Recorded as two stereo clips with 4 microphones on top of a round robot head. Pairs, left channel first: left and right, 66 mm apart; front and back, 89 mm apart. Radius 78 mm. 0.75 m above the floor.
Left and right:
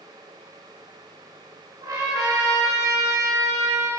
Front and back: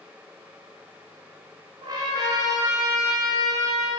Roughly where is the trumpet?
Behind right.